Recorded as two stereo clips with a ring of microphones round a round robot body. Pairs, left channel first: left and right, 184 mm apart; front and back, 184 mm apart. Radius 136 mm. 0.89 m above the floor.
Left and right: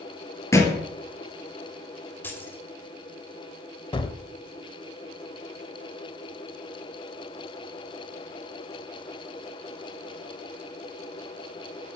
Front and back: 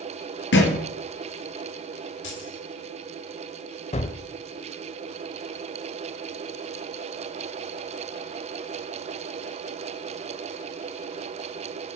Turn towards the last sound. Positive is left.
turn(degrees=35)